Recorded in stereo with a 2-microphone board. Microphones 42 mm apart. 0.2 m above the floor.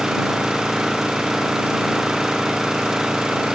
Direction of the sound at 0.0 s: 10° right (ahead or behind).